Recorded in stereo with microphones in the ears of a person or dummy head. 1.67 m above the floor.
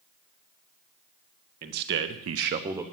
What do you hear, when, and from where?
1.6 s a man speaking: 50° right (ahead or behind), 1.4 m; by 2.8 s 10° right (ahead or behind), 0.8 m